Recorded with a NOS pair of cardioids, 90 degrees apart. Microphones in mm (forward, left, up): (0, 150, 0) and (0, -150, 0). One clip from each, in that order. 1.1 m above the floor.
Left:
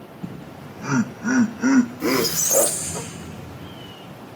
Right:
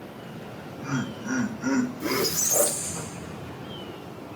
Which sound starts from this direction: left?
Laughter, at 0.2 s.